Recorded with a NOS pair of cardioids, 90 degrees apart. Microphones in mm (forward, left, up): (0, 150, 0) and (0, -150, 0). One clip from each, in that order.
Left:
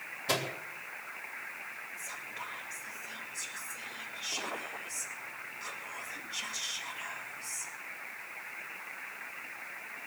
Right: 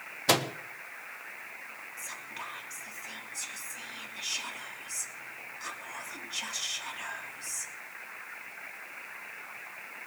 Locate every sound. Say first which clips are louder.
0.3 s a microwave: right 6 dB; 65° right, 1.4 m
2.0 s whispering: right 3 dB; 40° right, 3 m